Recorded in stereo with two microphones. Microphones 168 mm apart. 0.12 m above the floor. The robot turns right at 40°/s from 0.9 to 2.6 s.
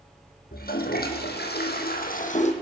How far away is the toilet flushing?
About 1.8 m.